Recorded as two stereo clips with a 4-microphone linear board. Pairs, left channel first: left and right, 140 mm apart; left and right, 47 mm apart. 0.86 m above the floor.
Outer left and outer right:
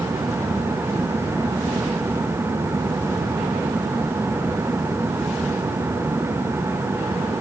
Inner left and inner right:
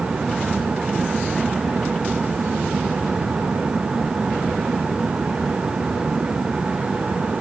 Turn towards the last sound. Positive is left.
No sound to turn to.